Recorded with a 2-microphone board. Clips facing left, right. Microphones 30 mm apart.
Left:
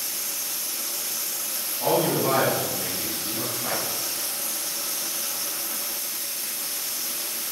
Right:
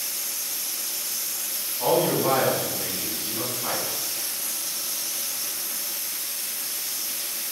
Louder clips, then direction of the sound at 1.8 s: Right 1 dB; 30° right (ahead or behind).